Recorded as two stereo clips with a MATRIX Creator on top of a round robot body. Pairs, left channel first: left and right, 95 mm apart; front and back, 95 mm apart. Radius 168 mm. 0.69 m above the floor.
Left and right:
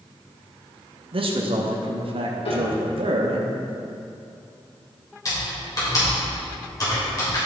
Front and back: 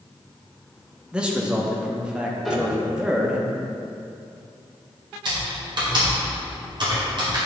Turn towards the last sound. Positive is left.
turn(degrees=140)